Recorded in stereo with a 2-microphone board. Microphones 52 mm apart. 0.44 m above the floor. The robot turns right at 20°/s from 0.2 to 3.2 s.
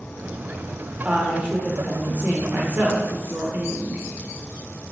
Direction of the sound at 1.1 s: 145° right.